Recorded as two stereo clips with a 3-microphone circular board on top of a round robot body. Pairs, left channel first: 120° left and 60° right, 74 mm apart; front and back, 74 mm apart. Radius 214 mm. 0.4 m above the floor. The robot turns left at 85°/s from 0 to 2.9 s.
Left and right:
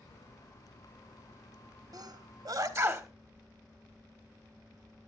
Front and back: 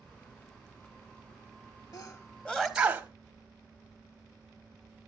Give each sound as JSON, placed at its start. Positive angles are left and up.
{"t": 1.9, "sound": "a sneeze", "azimuth_deg": -30, "distance_m": 2.5}